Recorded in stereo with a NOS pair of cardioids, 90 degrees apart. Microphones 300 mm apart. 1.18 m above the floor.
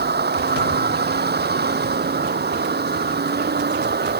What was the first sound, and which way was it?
A vehicle, 35° right.